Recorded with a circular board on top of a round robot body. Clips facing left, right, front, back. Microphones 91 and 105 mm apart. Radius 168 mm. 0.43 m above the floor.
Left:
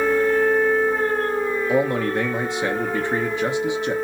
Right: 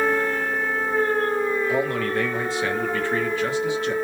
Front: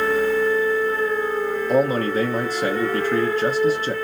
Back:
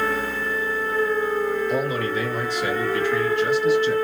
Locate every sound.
1.7 s a man speaking: 25° left, 0.9 m